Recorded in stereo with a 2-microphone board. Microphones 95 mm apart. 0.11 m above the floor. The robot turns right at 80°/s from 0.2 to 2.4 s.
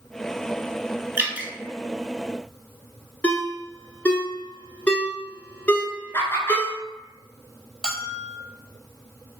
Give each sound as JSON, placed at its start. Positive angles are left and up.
{"t": 1.2, "sound": "dripping", "side_deg": -20, "distance_m": 0.7}
{"t": 3.2, "sound": "a ringtone", "side_deg": 15, "distance_m": 0.8}
{"t": 6.1, "sound": "laughter", "side_deg": 25, "distance_m": 1.2}
{"t": 7.8, "sound": "a bell", "side_deg": 5, "distance_m": 0.6}